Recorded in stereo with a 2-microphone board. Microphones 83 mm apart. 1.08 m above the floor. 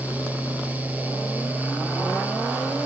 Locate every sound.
Only background noise.